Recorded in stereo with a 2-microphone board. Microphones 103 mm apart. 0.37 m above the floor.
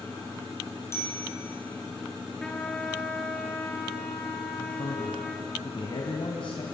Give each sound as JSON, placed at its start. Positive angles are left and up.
{"t": 0.9, "sound": "a bicycle bell", "side_deg": 25, "distance_m": 7.5}
{"t": 2.4, "sound": "a trumpet", "side_deg": 10, "distance_m": 3.0}
{"t": 4.6, "sound": "a man speaking", "side_deg": 60, "distance_m": 2.0}